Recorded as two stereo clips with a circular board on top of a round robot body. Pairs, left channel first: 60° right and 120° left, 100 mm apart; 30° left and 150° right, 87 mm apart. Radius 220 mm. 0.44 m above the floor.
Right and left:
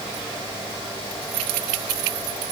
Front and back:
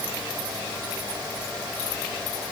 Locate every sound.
Only background noise.